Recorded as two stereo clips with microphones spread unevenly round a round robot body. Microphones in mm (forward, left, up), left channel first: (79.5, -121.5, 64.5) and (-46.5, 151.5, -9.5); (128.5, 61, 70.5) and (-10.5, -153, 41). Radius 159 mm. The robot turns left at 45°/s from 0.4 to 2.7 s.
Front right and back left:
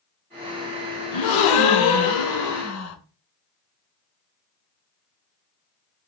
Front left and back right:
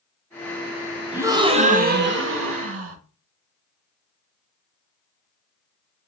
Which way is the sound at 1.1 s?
45° right.